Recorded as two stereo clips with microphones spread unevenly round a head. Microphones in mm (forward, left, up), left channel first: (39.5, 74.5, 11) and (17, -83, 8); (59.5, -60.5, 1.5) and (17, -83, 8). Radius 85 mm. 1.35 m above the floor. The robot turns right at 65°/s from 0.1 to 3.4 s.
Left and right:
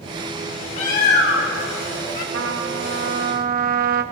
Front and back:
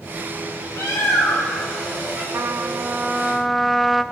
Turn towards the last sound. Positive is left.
turn(degrees=-65)